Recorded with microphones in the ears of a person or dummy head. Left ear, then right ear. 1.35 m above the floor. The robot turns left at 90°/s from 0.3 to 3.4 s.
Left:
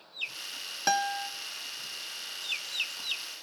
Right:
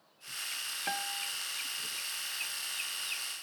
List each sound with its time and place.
0.9 s a guitar: 90° left, 0.8 m; by 1.3 s 50° left, 0.8 m